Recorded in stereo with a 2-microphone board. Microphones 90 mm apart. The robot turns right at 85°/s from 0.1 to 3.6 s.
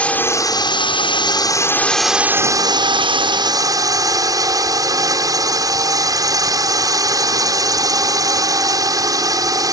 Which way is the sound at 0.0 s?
15° left.